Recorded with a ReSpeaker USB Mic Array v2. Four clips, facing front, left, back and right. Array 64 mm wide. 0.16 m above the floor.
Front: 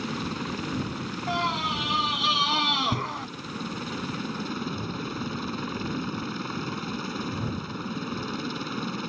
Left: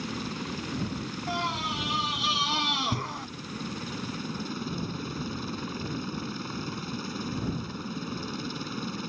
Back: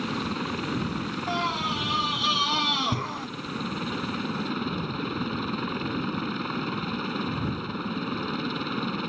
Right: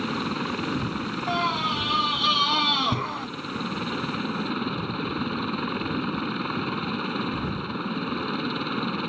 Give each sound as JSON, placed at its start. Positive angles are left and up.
{"t": 0.0, "sound": "a helicopter", "azimuth_deg": -105}
{"t": 1.3, "sound": "a scream", "azimuth_deg": -75}